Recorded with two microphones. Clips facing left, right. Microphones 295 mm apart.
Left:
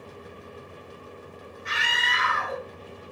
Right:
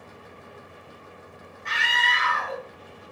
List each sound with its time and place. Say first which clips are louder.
1.6 s a scream: right 4 dB; 5° left (ahead or behind), 1.3 m